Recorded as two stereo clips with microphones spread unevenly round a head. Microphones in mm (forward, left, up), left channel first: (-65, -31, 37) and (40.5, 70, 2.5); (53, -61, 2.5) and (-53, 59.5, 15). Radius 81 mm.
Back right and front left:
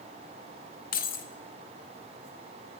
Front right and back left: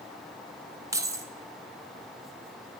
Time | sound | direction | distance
0.9 | keys jangling | 160° right | 1.1 m